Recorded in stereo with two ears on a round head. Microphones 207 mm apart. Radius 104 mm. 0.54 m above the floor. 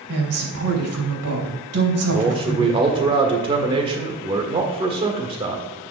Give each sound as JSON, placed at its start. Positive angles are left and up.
{"t": 0.1, "sound": "a woman speaking", "side_deg": -65, "distance_m": 3.0}
{"t": 2.1, "sound": "a man speaking", "side_deg": -25, "distance_m": 1.5}